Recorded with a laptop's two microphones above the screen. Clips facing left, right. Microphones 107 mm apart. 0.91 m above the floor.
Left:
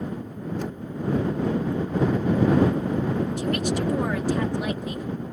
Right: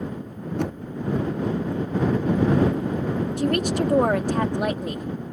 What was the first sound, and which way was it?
Knocking, 75° right (ahead or behind).